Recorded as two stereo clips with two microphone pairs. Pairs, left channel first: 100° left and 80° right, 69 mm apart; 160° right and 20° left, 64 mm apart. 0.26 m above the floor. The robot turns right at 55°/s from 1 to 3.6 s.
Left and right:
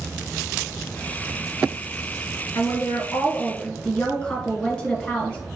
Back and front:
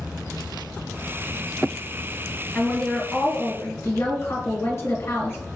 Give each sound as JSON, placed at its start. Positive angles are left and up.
{"t": 2.5, "sound": "a woman speaking", "azimuth_deg": 115, "distance_m": 1.6}